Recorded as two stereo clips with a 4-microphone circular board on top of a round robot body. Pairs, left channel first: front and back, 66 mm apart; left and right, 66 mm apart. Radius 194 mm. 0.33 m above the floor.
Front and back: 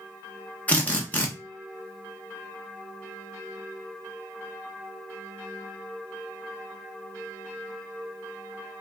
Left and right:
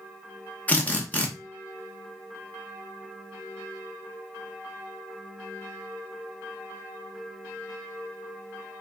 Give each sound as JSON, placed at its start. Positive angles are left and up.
{"t": 0.7, "sound": "a drill", "azimuth_deg": 45, "distance_m": 1.4}